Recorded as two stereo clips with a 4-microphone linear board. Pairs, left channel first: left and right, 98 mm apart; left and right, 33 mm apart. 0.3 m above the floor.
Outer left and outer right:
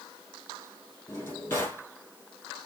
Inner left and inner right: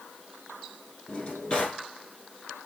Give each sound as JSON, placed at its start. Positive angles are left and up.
{"t": 1.1, "sound": "a drawer", "side_deg": 20, "distance_m": 3.5}